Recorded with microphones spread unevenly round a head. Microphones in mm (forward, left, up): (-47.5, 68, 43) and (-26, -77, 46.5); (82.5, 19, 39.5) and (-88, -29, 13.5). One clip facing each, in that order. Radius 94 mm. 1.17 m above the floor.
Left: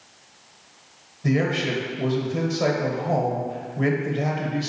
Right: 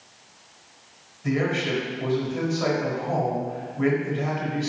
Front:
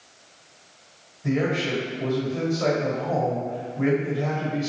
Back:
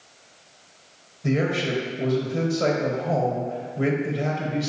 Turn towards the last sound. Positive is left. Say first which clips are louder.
# left 2 dB, even
turn(degrees=140)